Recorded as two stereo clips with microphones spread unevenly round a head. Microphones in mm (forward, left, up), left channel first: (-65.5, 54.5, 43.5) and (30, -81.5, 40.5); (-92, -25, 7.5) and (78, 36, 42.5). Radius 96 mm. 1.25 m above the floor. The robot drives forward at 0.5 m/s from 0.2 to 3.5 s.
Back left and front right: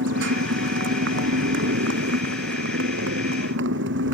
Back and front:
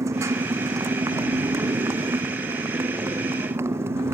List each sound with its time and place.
0.0 s a motorcycle: 55° right; by 4.2 s 60° right